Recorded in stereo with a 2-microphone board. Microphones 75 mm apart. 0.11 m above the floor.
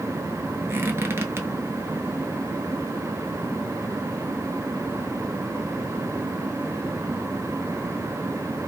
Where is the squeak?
35° right (ahead or behind), 0.8 m.